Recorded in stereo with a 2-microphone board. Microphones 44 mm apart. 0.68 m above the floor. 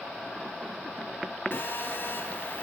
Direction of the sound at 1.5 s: 50° left (ahead or behind).